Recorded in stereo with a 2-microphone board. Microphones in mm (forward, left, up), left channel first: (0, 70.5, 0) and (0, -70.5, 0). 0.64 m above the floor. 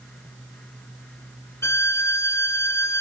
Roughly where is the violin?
Centre.